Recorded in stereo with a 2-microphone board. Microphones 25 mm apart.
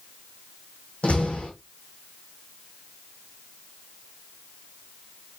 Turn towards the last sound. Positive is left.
turn(degrees=55)  # may be behind; listen again after turning